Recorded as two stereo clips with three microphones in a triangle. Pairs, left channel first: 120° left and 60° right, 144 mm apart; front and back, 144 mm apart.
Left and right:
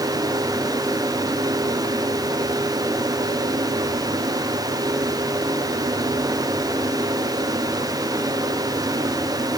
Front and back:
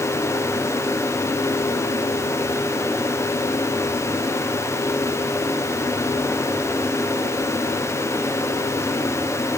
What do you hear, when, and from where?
Only background noise.